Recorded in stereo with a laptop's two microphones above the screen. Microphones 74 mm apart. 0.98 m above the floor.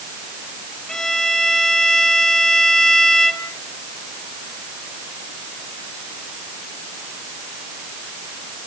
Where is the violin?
5° left (ahead or behind), 1.2 m.